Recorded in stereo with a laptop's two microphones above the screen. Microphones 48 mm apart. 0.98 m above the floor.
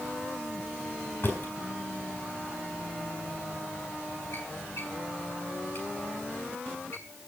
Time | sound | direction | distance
1.2 | a drawer | 55° left (ahead or behind) | 4 m